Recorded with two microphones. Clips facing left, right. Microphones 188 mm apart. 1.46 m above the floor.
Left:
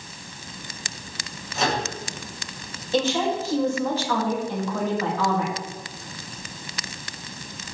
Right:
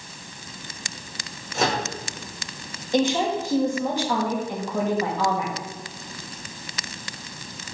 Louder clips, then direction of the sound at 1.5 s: Right 1 dB; 50° right (ahead or behind).